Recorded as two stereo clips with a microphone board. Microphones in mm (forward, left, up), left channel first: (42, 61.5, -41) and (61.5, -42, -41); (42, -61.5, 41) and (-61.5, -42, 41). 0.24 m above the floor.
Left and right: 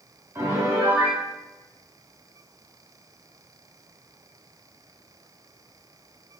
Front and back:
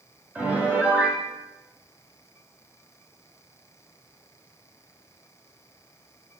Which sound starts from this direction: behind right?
A piano, at 0.3 s.